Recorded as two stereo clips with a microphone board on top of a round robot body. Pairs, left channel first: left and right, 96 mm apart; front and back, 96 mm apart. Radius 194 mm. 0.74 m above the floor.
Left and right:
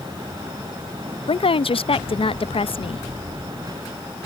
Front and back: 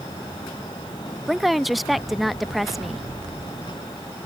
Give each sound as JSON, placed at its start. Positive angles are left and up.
{"t": 1.3, "sound": "a woman speaking", "azimuth_deg": 90}